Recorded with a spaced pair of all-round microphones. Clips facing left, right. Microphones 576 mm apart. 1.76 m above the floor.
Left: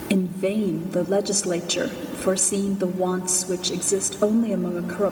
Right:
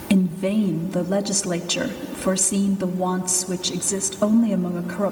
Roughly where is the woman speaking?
Right.